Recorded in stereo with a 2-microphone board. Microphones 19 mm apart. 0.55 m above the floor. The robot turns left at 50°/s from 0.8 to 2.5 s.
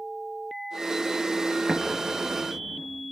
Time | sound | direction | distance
1.7 | an explosion | 5° right (ahead or behind) | 5 m